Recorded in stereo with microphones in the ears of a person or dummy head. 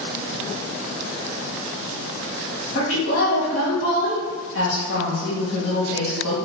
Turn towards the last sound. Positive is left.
turn(degrees=80)